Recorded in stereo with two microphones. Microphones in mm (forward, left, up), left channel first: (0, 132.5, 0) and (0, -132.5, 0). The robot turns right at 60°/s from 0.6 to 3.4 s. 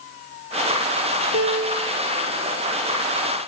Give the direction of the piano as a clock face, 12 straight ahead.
3 o'clock.